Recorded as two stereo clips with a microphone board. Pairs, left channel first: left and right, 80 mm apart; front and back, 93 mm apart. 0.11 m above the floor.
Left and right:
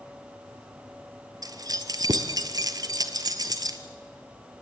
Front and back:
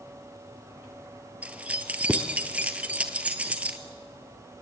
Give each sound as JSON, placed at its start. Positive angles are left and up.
{"t": 1.4, "sound": "keys jangling", "azimuth_deg": -105, "distance_m": 1.3}